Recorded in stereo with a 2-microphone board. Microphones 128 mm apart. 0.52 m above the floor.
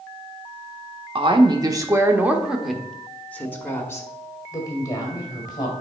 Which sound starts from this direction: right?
A woman speaking, at 1.1 s.